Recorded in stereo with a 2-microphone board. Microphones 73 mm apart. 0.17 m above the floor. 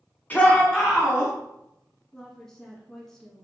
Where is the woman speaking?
10° left (ahead or behind), 1.8 m.